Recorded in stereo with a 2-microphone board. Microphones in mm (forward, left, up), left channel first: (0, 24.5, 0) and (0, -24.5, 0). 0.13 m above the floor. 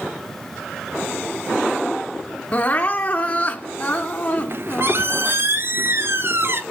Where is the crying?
30° left (ahead or behind), 1.8 m.